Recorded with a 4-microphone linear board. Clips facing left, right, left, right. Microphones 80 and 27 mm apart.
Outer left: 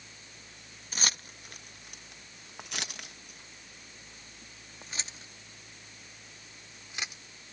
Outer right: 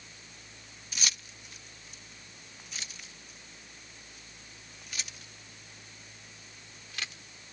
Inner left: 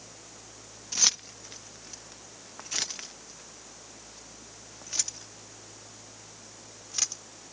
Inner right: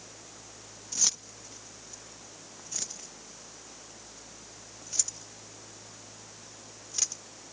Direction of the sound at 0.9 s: 40° left (ahead or behind).